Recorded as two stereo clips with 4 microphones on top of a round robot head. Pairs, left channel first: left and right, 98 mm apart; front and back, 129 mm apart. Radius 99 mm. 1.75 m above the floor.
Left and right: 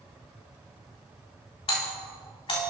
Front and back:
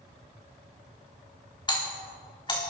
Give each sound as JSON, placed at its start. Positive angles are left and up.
{"t": 1.7, "sound": "a doorbell", "azimuth_deg": 50, "distance_m": 3.5}